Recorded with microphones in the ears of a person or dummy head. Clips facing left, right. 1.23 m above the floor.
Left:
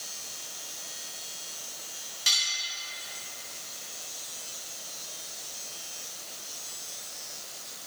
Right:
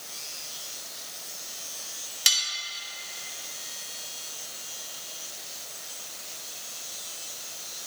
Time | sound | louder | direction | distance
2.3 | cutlery clinking | right 1 dB | 80° right | 2 m